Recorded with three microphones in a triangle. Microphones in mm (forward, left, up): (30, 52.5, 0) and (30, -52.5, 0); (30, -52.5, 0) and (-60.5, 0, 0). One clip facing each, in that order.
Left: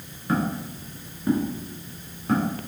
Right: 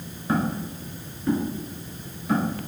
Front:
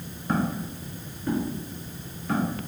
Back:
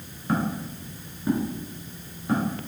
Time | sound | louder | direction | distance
0.3 | footsteps | even, even | 130° right | 1.5 m